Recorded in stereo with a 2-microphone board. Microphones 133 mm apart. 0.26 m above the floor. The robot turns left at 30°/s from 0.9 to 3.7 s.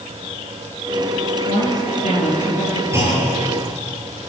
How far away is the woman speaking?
About 7.5 m.